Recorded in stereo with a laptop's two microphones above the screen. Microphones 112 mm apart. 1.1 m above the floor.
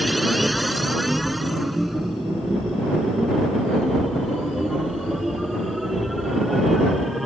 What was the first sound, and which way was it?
A machine running, centre (ahead or behind).